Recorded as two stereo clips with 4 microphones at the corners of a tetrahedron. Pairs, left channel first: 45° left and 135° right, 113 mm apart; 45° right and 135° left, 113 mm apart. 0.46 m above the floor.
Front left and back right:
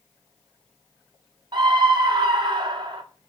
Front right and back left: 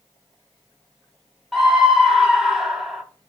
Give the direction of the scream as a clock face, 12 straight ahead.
5 o'clock.